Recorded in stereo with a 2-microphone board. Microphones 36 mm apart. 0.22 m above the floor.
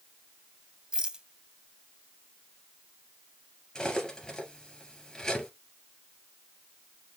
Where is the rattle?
25° right (ahead or behind), 0.6 m.